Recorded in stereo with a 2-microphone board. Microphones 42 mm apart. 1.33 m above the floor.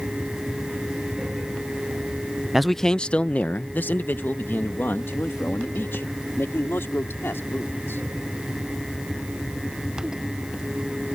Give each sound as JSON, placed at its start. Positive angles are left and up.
{"t": 2.5, "sound": "a man speaking", "side_deg": -5}